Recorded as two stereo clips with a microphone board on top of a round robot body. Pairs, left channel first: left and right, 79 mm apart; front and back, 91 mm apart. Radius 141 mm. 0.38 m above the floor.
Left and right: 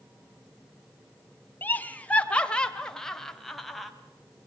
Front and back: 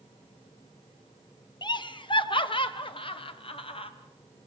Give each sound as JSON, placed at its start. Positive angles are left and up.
{"t": 1.6, "sound": "laughter", "azimuth_deg": 25, "distance_m": 2.0}